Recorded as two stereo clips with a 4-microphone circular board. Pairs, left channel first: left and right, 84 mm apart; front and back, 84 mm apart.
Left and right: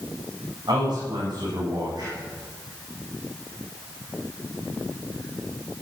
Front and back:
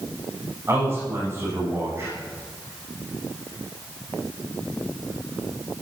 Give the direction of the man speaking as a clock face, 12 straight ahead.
4 o'clock.